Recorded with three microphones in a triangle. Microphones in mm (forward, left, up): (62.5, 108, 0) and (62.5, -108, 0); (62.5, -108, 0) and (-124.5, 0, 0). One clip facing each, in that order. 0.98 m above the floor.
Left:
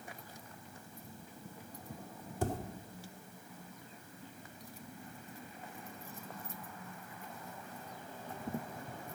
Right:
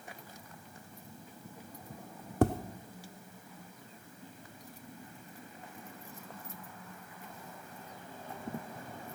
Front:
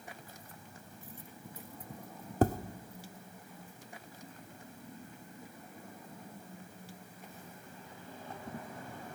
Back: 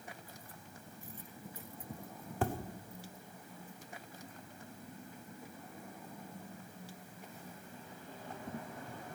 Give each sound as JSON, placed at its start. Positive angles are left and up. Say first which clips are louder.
{"t": 2.4, "sound": "tapping", "louder": "right 9 dB, front 7 dB", "azimuth_deg": -80, "distance_m": 0.6}